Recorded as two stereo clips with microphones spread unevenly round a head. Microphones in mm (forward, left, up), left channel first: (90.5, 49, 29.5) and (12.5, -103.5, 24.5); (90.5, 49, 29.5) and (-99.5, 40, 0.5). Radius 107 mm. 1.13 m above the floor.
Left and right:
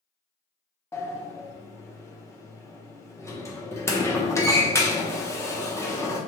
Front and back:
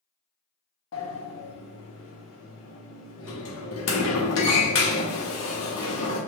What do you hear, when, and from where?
0.9 s a sliding door: 10° right, 0.8 m